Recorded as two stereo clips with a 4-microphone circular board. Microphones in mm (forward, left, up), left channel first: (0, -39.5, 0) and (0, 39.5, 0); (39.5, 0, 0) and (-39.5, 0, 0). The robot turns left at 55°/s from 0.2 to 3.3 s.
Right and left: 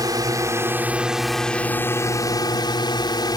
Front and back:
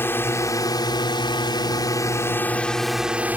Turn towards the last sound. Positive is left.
turn(degrees=-110)